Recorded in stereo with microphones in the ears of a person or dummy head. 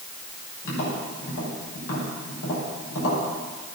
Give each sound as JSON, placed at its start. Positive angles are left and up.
{"t": 0.6, "sound": "tapping", "side_deg": 70, "distance_m": 5.5}